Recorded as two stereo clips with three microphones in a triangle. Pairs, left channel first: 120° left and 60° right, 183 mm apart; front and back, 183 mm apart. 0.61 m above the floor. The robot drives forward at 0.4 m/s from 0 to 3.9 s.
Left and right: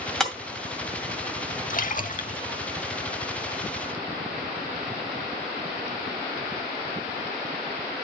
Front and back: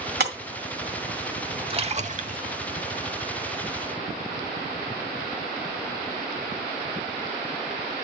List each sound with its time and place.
0.2 s breaking glass: 155° right, 1.6 m
1.7 s a splash: 135° left, 0.6 m; by 2.4 s 150° left, 0.7 m